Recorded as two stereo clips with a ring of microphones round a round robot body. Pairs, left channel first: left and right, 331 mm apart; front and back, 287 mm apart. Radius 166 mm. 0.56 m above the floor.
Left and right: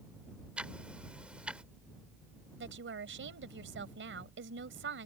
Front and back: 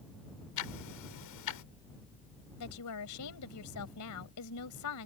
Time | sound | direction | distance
0.6 | ticking | 5° right | ?
2.6 | a woman speaking | 35° right | ?